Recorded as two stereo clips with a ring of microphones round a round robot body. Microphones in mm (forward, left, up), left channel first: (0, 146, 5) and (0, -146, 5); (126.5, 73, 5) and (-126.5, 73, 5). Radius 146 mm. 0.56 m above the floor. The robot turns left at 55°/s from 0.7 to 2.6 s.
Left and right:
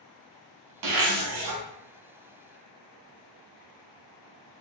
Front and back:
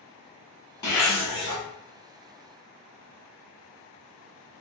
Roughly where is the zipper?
Right.